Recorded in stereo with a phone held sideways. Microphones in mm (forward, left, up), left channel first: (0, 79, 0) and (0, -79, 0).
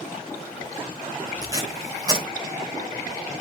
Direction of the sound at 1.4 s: 25° right (ahead or behind).